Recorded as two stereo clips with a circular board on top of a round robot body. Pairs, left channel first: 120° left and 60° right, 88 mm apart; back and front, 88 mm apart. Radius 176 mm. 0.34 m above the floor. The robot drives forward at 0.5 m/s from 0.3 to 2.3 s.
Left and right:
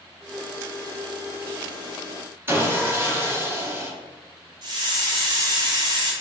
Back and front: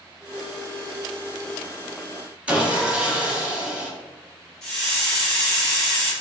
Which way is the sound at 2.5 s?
55° right.